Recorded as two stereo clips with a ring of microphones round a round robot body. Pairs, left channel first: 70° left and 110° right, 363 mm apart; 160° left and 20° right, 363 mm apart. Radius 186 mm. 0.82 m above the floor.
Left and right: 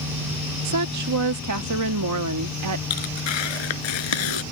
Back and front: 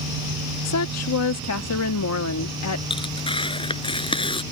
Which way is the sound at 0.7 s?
155° right.